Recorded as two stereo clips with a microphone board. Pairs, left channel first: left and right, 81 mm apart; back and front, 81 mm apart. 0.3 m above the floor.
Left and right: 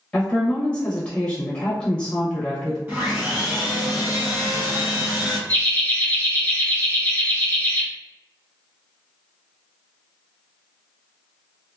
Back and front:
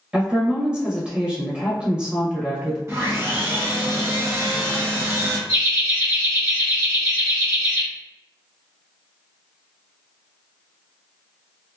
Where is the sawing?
35° right, 2.0 m.